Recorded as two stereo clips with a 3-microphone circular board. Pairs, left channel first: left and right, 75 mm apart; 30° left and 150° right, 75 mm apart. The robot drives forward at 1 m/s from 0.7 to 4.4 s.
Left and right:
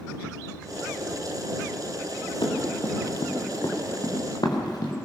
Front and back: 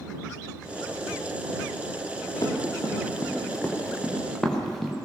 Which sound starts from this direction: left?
Running footsteps, at 2.4 s.